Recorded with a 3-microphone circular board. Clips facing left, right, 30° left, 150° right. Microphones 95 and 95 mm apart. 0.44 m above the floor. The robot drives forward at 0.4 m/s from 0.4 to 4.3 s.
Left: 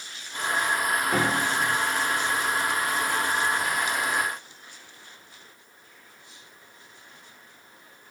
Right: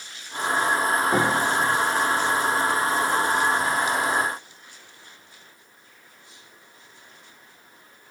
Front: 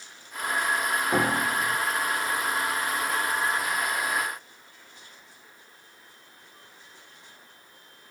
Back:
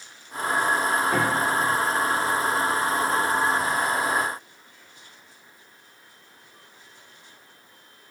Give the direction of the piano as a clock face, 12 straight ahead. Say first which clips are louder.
Right 3 dB, back 2 dB; 1 o'clock.